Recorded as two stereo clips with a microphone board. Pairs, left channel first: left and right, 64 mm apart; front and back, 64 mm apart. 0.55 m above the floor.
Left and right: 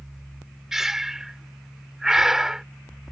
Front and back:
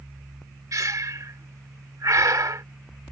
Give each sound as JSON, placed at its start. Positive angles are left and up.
{"t": 0.7, "sound": "breathing", "azimuth_deg": -170}